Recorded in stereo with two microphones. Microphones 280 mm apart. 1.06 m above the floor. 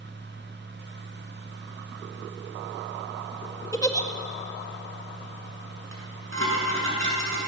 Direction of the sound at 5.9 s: 50° right (ahead or behind).